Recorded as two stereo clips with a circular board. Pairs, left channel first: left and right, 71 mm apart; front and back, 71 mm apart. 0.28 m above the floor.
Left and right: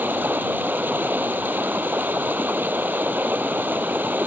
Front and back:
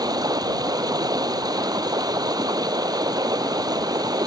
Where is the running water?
155° right.